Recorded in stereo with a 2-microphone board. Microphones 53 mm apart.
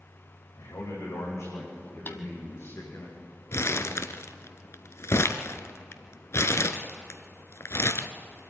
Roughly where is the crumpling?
Left.